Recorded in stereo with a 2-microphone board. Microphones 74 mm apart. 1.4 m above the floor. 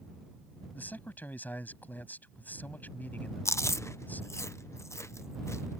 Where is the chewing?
40° left (ahead or behind).